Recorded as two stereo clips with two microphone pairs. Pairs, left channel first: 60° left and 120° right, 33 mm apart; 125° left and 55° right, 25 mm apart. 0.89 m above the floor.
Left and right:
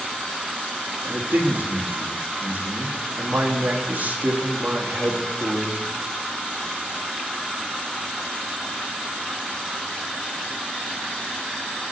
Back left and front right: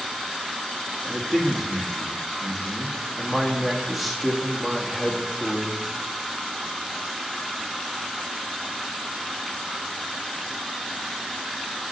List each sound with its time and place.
1.0 s a man speaking: 145° right, 1.5 m